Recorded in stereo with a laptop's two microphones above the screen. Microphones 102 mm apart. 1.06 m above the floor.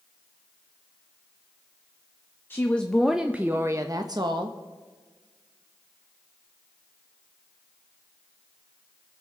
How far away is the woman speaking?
About 0.9 m.